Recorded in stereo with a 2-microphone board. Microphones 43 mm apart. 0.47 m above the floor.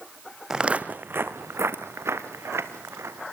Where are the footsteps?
10° right (ahead or behind), 1.1 m; by 3.3 s 80° right, 4 m.